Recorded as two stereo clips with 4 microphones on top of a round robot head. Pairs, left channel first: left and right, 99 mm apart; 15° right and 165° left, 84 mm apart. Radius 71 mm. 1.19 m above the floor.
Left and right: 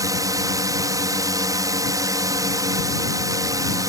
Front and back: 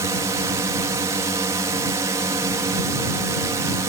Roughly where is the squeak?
I don't hear a squeak.